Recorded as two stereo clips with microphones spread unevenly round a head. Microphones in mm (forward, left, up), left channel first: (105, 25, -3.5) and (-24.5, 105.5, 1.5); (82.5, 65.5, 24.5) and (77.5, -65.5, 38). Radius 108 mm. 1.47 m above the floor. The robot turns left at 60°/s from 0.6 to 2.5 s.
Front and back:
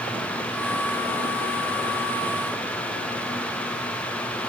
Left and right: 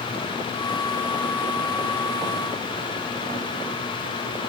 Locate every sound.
Only background noise.